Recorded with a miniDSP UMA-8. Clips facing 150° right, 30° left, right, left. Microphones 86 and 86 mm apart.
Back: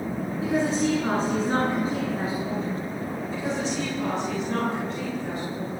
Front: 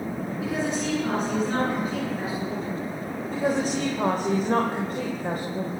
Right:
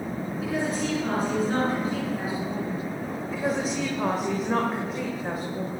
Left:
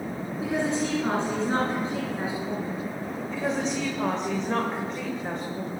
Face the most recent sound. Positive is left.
turn(degrees=-5)